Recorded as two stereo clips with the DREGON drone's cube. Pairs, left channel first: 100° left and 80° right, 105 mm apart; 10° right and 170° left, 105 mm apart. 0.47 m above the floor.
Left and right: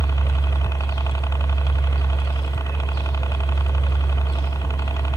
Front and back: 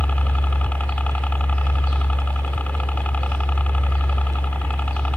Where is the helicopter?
60° left.